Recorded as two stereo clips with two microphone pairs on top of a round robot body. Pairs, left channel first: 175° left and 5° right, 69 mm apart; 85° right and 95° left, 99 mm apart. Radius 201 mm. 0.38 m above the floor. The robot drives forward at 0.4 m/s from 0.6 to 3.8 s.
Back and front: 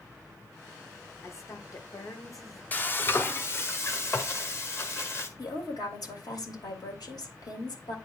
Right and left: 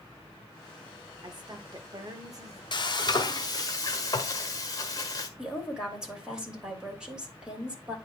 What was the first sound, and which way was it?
A woman speaking, 130° left.